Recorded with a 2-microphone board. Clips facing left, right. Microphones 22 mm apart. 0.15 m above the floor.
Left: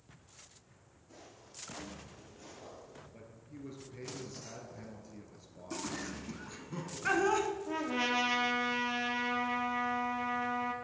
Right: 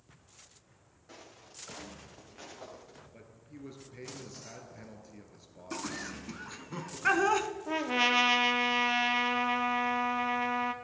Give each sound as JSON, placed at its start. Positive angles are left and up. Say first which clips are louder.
{"t": 1.1, "sound": "footsteps", "louder": "right 3 dB", "side_deg": -70, "distance_m": 5.0}
{"t": 3.1, "sound": "a man speaking", "louder": "even", "side_deg": -15, "distance_m": 2.0}
{"t": 5.7, "sound": "laughter", "louder": "right 1 dB", "side_deg": -30, "distance_m": 1.2}
{"t": 7.7, "sound": "a trumpet", "louder": "right 5 dB", "side_deg": -35, "distance_m": 1.0}